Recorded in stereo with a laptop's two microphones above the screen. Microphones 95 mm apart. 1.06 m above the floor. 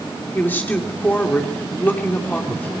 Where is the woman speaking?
20° left (ahead or behind), 2.5 m.